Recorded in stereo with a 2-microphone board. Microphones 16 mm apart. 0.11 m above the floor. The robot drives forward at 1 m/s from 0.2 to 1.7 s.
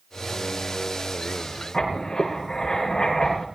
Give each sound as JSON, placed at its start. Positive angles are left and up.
{"t": 1.7, "sound": "writing", "side_deg": 40, "distance_m": 7.0}